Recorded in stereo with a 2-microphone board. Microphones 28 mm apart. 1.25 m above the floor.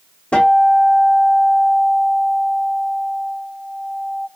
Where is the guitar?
55° left (ahead or behind), 1.1 m.